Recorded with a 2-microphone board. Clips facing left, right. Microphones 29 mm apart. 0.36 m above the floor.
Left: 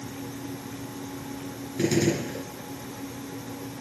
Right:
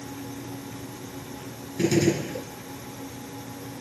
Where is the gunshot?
5° left (ahead or behind), 3 m.